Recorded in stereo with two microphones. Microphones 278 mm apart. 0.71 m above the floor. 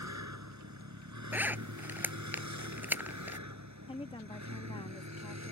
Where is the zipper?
5° right (ahead or behind).